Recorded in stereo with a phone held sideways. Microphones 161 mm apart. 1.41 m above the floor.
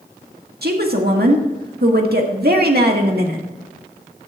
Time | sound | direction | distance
0.6 | a woman speaking | 75° right (ahead or behind) | 1.8 m